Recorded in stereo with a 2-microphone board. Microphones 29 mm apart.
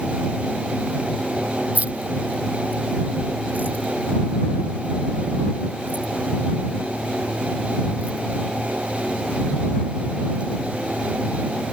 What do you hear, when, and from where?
1.8 s keys jangling: 55° right (ahead or behind); by 10.6 s 35° right (ahead or behind)